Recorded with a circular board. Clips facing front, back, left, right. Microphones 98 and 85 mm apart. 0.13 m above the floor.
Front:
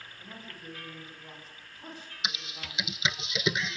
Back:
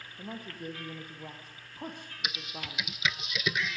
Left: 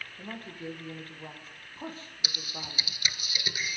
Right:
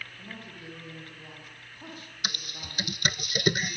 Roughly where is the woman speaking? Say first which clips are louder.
Back 8 dB, left 4 dB; behind left.